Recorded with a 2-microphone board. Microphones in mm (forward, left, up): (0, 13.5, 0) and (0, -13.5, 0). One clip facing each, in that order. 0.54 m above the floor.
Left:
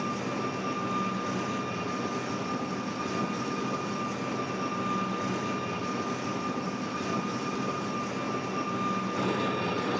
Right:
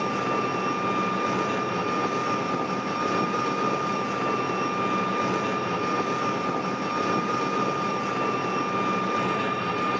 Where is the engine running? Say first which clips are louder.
Right 6 dB; 65° right (ahead or behind), 0.8 m.